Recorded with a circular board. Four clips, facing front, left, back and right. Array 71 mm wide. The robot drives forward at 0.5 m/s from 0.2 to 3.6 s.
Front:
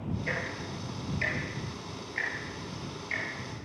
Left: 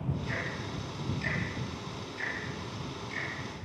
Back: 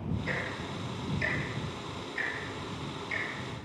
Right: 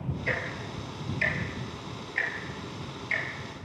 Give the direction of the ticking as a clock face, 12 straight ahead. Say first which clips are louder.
Right 4 dB, even; 2 o'clock.